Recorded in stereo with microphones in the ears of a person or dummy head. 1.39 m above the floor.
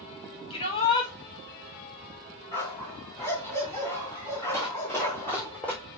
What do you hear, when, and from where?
0.5 s a shout: 25° left (ahead or behind), 4 m
2.5 s a dog barking: 15° left (ahead or behind), 3.5 m
4.5 s running footsteps: 15° left (ahead or behind), 3.5 m; by 5.8 s 10° left (ahead or behind), 3.5 m